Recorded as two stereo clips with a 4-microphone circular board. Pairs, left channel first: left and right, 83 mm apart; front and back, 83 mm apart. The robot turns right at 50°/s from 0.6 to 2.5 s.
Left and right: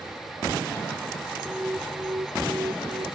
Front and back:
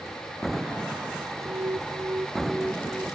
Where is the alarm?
160° right; by 3.1 s 105° right.